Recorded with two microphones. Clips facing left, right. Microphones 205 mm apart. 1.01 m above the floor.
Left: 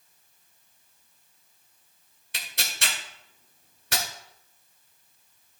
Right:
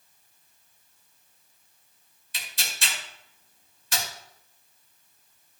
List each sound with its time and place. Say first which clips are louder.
2.3 s tearing paper: left 2 dB; 65° left (ahead or behind), 1.9 m